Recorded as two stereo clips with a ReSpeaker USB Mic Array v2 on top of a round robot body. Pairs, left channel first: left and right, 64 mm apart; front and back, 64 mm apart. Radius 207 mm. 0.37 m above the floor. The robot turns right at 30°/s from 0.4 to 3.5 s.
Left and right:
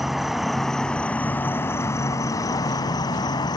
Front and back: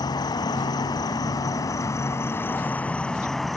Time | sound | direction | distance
0.0 | an insect | 5° right | ?